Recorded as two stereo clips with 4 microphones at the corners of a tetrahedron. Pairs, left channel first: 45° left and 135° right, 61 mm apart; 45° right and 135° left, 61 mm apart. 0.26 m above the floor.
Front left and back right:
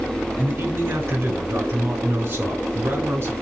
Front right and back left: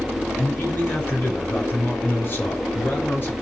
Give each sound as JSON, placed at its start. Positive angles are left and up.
{"t": 0.4, "sound": "a man speaking", "azimuth_deg": -95, "distance_m": 3.0}